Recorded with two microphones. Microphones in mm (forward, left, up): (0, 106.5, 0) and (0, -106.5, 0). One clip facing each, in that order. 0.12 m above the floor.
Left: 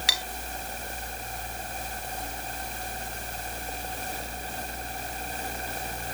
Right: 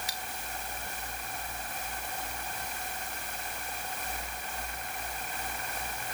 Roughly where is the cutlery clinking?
Left.